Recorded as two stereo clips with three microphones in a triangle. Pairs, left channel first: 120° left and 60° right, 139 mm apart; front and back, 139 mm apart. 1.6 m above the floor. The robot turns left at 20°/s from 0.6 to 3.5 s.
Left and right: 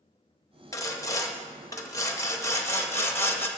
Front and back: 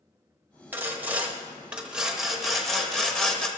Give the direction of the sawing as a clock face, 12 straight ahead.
8 o'clock.